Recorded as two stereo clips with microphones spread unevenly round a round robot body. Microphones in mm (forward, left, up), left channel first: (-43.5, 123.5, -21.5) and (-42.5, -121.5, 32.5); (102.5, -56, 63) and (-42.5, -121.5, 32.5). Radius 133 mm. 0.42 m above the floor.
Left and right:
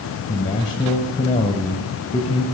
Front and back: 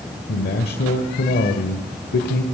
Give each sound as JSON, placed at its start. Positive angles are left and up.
{"t": 0.3, "sound": "a man speaking", "azimuth_deg": 25, "distance_m": 1.9}